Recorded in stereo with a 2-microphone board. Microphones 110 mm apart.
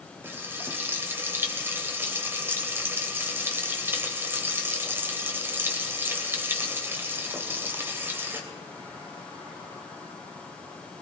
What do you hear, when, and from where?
0.2 s frying: 20° right (ahead or behind), 2.5 m